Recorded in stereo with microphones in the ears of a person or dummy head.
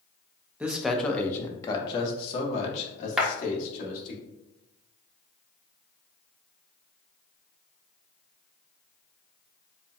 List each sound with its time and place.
0.6 s a man speaking: 5° right (ahead or behind), 0.7 m; by 4.2 s 55° left (ahead or behind), 2 m
3.2 s a clap: 5° left (ahead or behind), 1.1 m